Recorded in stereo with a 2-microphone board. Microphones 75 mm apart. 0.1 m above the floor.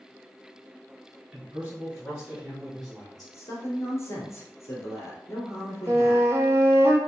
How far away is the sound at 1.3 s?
About 1.4 m.